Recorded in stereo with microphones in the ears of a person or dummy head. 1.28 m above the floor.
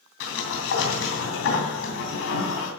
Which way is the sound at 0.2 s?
70° left (ahead or behind).